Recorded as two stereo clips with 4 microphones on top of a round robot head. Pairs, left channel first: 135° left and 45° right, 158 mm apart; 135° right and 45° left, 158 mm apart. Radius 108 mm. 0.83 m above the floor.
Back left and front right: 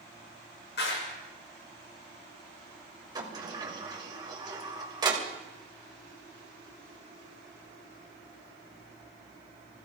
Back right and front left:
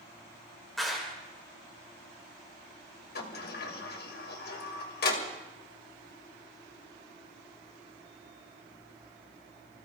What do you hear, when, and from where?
0.8 s a clap: 135° left, 3 m
3.1 s a sliding door: 115° right, 2.5 m